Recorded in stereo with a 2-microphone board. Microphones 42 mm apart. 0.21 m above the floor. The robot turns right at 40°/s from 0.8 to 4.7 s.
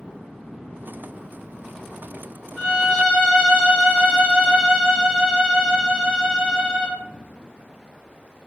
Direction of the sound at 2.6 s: 20° left (ahead or behind).